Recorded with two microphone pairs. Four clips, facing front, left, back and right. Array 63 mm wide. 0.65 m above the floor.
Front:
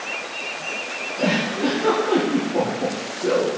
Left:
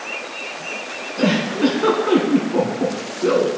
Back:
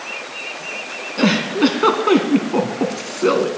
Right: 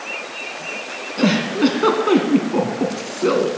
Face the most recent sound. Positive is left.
turn(degrees=-165)